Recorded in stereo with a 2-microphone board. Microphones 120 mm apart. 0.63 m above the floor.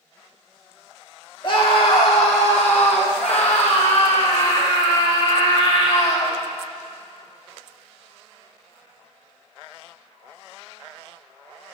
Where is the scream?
45° left (ahead or behind), 1.4 m; by 6.3 s 65° left (ahead or behind), 4.5 m.